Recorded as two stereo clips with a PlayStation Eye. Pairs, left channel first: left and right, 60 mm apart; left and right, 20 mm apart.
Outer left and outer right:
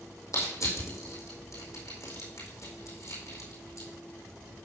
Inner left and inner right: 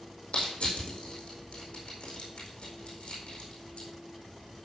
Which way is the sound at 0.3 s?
60° left (ahead or behind).